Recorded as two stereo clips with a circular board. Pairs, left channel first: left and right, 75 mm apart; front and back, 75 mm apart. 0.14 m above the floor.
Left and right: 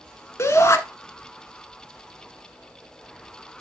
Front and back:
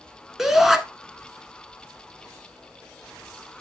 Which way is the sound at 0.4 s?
100° left.